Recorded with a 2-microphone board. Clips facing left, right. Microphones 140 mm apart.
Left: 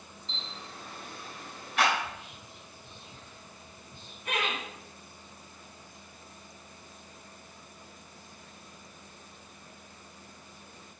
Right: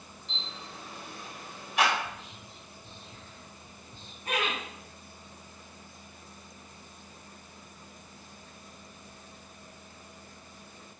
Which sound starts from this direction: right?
Laughter, at 4.2 s.